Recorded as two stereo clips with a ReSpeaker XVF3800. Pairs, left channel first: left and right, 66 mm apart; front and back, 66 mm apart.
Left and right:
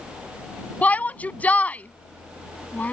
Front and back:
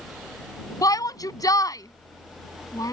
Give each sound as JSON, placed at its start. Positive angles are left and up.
{"t": 0.8, "sound": "a shout", "azimuth_deg": 25}